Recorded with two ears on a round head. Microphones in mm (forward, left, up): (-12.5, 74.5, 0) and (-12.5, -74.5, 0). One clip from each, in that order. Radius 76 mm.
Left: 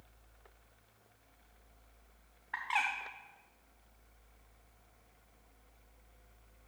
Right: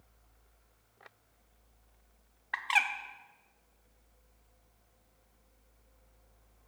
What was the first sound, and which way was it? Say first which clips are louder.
A bird: right 5 dB; 65° right (ahead or behind).